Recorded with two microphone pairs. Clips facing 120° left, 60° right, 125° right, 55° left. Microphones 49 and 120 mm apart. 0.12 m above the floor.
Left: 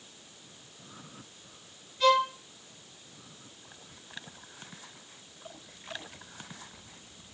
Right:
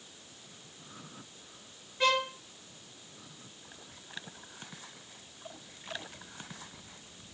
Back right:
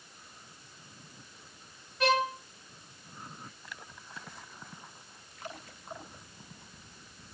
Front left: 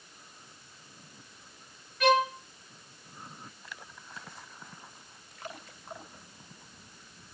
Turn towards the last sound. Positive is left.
turn(degrees=-90)